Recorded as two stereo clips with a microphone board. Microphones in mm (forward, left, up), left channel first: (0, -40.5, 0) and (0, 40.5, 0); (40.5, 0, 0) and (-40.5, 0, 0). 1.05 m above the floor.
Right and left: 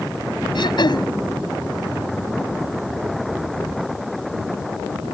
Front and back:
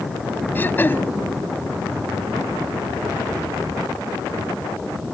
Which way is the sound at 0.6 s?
65° right.